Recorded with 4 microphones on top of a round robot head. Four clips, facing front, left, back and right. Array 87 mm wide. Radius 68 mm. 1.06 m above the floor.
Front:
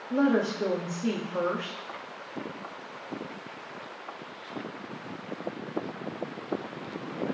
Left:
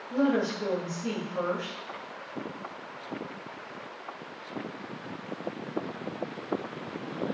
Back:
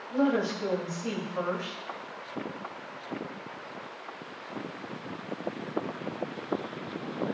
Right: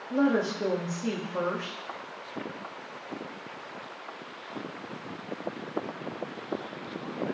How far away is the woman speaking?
About 1.8 m.